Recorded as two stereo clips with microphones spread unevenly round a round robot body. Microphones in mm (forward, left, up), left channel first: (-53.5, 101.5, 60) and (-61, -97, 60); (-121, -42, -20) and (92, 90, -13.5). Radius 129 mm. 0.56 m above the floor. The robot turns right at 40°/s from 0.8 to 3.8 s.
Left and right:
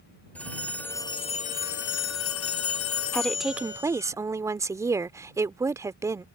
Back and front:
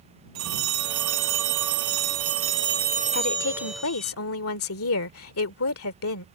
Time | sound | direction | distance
0.3 | a phone ringing | 5° left | ?
3.1 | a woman speaking | 170° left | ?